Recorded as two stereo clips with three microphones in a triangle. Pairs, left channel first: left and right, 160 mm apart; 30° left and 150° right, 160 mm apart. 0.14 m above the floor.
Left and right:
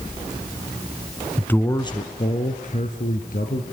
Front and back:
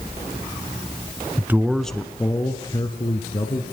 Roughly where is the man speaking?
Behind.